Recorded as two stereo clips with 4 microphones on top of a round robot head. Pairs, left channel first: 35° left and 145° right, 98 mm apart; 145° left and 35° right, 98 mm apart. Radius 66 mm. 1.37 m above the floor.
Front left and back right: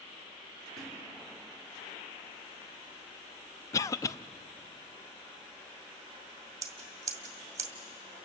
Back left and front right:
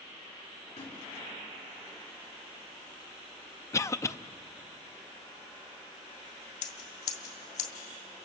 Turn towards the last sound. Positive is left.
turn(degrees=155)